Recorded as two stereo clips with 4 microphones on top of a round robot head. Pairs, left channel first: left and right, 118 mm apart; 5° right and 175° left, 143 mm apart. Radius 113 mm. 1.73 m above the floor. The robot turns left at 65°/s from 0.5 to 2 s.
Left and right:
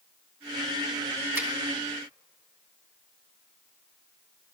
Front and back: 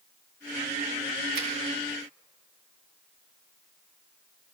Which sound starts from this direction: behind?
A finger snap, at 1.4 s.